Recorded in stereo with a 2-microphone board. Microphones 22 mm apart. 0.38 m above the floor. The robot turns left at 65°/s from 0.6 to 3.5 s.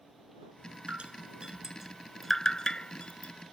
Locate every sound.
0.9 s dripping: 75° right (ahead or behind); by 3.3 s 80° left